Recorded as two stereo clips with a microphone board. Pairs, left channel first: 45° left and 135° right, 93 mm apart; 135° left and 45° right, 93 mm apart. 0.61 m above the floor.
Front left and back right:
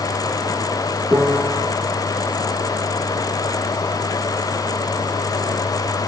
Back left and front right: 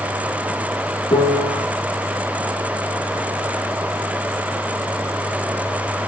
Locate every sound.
1.1 s a piano: 165° left, 1.2 m